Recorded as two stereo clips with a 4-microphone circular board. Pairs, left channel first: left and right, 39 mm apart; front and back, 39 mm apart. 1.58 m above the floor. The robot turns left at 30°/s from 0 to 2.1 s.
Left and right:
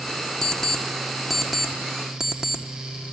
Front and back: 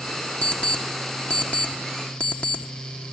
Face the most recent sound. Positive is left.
turn(degrees=-30)